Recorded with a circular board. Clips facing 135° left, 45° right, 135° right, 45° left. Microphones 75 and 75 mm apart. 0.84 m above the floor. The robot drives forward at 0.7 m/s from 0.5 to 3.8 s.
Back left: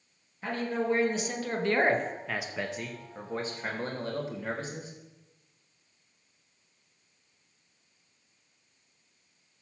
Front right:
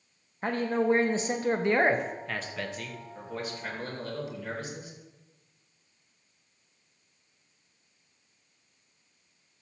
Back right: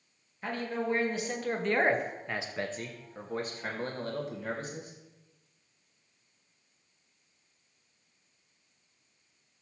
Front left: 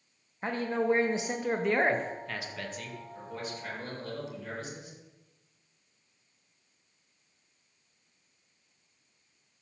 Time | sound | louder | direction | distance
0.4 | a man speaking | front right 4 dB, front left 4 dB | 5° right | 1.2 m